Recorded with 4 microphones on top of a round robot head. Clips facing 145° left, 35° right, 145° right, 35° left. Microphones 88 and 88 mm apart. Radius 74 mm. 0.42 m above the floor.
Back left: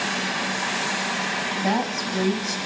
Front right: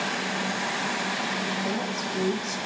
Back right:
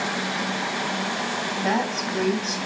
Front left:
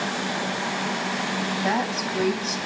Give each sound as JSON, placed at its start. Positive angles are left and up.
{"t": 1.6, "sound": "a woman speaking", "azimuth_deg": 125, "distance_m": 3.0}